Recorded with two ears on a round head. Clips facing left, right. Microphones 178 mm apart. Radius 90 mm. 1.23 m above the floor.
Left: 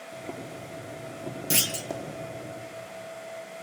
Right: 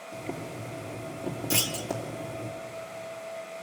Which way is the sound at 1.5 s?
20° left (ahead or behind).